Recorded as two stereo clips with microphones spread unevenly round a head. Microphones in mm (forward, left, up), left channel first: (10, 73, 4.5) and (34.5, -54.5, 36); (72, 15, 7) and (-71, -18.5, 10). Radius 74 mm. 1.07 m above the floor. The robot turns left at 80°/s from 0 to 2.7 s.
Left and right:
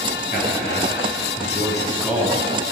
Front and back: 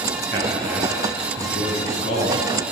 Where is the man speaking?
145° left, 7.5 m; by 2.5 s 25° right, 7.5 m.